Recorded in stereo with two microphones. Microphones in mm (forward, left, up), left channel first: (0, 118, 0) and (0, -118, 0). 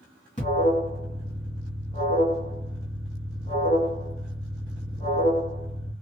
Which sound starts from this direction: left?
An alarm, at 0.4 s.